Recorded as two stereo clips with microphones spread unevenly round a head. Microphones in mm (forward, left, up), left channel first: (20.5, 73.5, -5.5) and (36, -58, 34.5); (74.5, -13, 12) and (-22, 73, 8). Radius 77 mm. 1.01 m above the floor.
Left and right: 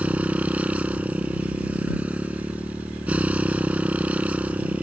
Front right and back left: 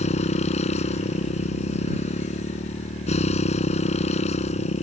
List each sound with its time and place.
0.0 s a motorcycle: 5° right